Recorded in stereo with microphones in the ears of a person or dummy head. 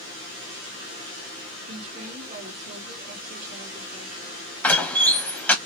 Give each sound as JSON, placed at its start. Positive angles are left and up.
{"t": 1.7, "sound": "a woman speaking", "side_deg": -50, "distance_m": 2.0}
{"t": 4.6, "sound": "a door slam", "side_deg": 10, "distance_m": 0.8}